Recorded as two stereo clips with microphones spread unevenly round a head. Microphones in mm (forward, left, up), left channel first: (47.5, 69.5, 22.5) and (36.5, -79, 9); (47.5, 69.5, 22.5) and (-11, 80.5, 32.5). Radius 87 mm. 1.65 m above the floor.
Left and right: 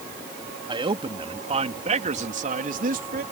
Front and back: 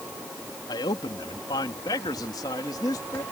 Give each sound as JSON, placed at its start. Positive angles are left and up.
{"t": 0.7, "sound": "a man speaking", "azimuth_deg": -35}